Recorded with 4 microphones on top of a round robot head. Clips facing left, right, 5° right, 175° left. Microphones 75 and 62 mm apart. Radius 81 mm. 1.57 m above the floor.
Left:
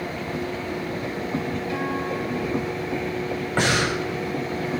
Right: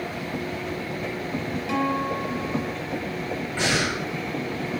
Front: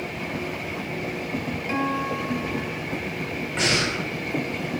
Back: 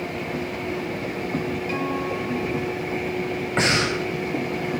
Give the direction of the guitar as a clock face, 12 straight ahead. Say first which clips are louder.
Right 5 dB, front 4 dB; 2 o'clock.